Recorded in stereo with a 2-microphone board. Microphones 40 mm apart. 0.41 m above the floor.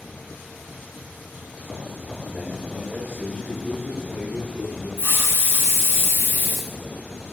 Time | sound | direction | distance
2.2 | a man speaking | 35° right (ahead or behind) | 1.7 m
5.0 | a hiss | 60° left (ahead or behind) | 1.8 m